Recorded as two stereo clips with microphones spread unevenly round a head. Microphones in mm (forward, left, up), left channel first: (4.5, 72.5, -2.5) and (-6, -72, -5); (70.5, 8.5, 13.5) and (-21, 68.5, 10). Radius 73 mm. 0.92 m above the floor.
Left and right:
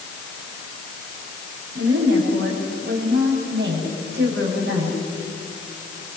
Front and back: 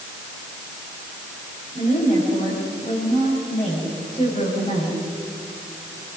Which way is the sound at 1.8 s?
80° right.